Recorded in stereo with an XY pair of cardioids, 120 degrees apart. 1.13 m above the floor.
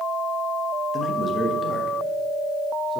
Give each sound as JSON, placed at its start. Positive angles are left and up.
{"t": 0.9, "sound": "a man speaking", "azimuth_deg": 30, "distance_m": 1.1}